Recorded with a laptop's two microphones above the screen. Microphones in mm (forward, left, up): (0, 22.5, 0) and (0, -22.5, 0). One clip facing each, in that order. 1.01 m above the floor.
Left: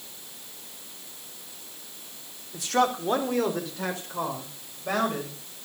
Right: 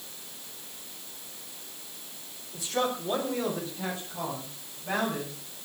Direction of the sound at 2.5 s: 70° left (ahead or behind).